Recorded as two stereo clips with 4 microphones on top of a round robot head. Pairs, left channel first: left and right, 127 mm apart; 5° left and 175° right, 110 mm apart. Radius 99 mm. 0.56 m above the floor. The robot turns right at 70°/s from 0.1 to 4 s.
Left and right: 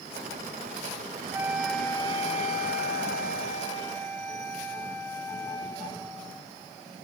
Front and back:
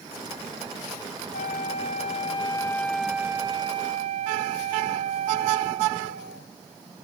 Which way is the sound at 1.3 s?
20° right.